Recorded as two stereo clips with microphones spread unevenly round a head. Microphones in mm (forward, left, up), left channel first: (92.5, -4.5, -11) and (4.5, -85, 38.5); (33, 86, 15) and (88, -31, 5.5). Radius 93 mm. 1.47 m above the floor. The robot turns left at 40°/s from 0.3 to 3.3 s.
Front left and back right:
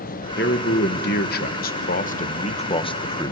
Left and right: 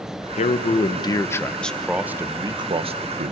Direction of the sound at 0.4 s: 85° left.